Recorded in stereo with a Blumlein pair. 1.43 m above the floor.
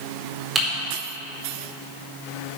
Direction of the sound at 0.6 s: 10° right.